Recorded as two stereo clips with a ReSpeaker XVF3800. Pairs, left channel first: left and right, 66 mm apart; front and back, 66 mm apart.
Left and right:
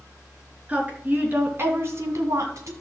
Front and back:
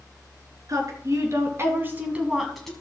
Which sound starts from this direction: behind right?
A woman speaking, at 0.7 s.